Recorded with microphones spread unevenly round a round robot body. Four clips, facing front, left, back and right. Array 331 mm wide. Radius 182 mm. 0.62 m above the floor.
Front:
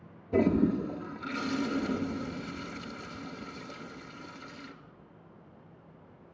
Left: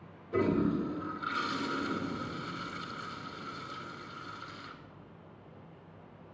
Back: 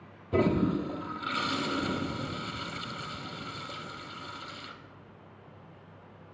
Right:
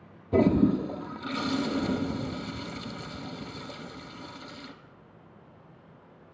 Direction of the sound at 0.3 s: 100° right.